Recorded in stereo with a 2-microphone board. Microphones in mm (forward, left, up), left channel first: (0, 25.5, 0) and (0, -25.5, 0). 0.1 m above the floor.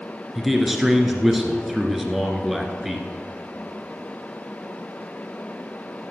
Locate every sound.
0.3 s a man speaking: 5° right (ahead or behind), 1.5 m